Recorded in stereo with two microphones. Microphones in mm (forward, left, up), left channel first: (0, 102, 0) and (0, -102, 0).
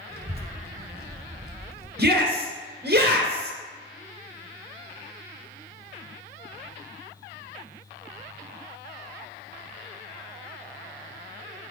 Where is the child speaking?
55° right (ahead or behind), 1.5 m.